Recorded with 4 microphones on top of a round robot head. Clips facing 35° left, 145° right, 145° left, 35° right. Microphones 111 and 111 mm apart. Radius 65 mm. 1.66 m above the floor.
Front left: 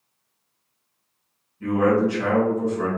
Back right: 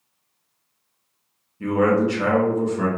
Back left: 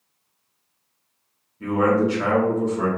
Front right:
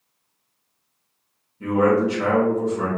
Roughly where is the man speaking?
Behind right.